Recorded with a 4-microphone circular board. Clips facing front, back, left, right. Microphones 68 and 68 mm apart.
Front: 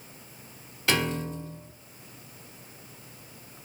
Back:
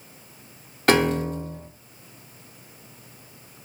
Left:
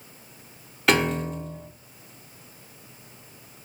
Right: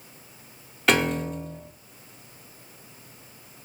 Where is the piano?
Straight behind, 0.8 m.